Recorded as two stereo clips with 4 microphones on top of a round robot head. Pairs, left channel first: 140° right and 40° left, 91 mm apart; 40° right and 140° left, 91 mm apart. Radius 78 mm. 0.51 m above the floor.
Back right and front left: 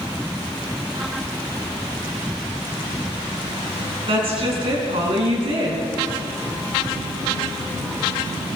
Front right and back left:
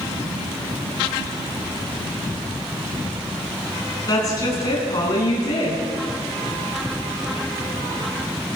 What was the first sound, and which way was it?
A woman speaking, 10° left.